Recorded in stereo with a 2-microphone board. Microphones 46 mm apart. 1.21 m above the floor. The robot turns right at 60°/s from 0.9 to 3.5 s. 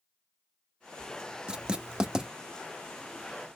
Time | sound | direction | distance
1.5 | writing | 20° right (ahead or behind) | 0.6 m